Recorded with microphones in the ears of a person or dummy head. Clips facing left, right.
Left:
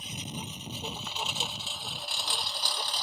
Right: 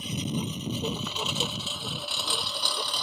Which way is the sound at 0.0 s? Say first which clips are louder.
Right 10 dB; 60° right (ahead or behind).